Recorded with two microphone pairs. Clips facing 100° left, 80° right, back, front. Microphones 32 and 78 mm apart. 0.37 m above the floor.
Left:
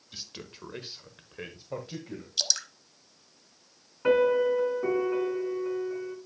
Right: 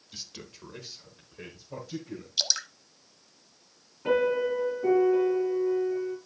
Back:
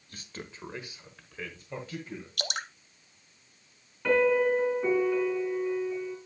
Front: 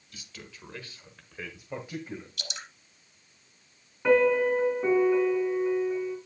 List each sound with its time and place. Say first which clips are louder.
0.1 s a man speaking: left 1 dB, back 4 dB; 175° left, 1.3 m; by 2.3 s 60° left, 1.8 m
2.4 s dripping: right 1 dB, back 7 dB; 155° right, 0.7 m
4.0 s a piano: left 3 dB, front 2 dB; 70° left, 4 m